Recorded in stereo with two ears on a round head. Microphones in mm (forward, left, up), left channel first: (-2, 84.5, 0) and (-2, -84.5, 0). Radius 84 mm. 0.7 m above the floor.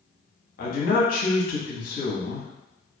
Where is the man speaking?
45° left (ahead or behind), 0.7 m.